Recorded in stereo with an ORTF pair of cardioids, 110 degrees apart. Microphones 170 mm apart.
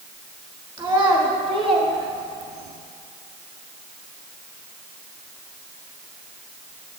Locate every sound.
0.8 s a child speaking: 25° right, 1.8 m; by 2.8 s 60° right, 1.1 m